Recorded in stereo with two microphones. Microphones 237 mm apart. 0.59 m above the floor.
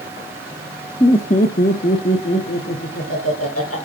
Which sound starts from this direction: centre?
Laughter, at 1.0 s.